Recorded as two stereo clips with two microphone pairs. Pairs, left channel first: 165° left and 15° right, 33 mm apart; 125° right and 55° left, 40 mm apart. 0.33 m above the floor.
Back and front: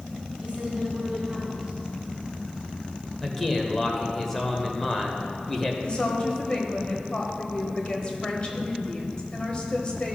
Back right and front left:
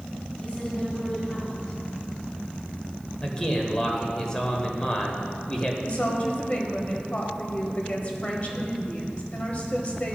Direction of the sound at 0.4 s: 75° right.